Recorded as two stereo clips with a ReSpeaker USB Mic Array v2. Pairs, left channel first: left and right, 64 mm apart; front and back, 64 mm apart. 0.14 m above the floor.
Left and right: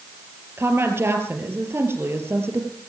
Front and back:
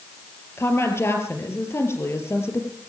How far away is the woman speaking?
About 3 m.